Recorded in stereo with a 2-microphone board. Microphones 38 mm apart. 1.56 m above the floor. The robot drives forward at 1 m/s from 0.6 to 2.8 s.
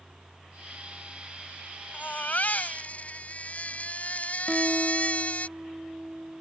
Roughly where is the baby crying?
Left.